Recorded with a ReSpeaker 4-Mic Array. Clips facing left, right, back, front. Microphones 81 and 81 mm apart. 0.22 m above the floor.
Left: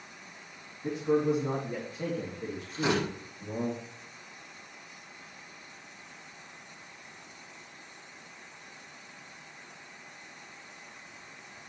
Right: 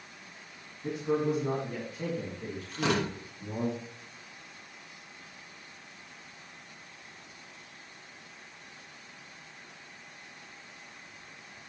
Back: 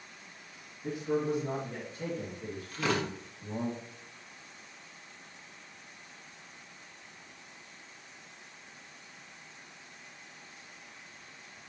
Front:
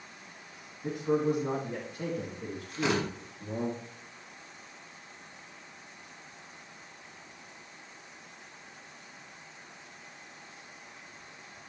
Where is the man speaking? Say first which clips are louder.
Left 2 dB, front 3 dB; 5° left, 2.5 m; by 3.7 s 5° right, 4 m.